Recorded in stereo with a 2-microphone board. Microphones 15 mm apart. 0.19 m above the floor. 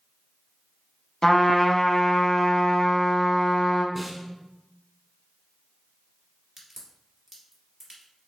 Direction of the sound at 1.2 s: 35° left (ahead or behind).